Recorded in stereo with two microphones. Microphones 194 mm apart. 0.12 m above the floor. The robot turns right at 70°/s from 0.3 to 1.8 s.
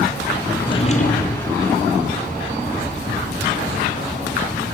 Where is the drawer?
15° left, 1.5 m; by 1.4 s 75° left, 1.5 m.